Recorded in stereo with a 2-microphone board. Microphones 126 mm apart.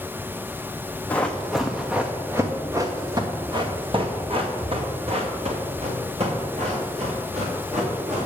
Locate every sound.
1.1 s running footsteps: 10° left (ahead or behind), 1.2 m; by 8.3 s 65° right (ahead or behind), 3.5 m